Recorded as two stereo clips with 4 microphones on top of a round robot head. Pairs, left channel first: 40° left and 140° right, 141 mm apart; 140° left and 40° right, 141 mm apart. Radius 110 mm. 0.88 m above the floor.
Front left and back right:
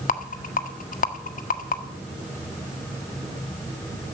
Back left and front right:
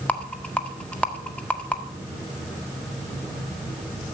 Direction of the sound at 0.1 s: 60° left.